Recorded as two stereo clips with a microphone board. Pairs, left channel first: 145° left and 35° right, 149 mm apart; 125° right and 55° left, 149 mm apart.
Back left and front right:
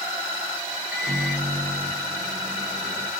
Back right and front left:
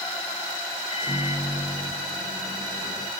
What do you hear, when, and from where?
0.9 s a microwave: 115° right, 1.0 m